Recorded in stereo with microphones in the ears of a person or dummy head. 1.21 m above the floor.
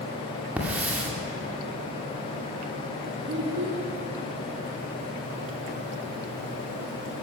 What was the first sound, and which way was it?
A hiss, 5° right (ahead or behind).